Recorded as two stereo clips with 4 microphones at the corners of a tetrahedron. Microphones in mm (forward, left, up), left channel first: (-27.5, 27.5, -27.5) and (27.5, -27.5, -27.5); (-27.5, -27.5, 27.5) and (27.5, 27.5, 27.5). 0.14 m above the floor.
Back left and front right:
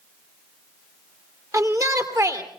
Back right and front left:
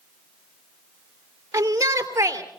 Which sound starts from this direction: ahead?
A shout, at 1.5 s.